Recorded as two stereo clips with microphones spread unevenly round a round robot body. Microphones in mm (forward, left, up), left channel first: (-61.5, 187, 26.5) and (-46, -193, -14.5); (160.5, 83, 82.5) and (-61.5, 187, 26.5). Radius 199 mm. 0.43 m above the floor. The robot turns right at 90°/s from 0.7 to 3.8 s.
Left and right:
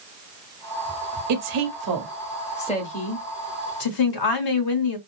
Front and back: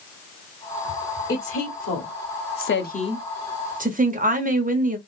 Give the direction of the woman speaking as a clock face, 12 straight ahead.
4 o'clock.